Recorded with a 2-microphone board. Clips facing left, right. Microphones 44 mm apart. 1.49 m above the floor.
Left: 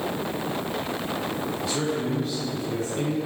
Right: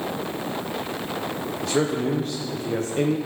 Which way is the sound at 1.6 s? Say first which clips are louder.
Right 6 dB; 60° right (ahead or behind).